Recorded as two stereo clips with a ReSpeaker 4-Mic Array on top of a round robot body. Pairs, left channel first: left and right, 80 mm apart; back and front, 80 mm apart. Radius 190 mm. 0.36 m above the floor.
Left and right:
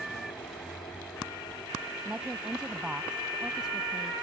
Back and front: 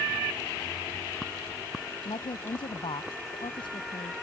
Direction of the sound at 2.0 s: 170° right.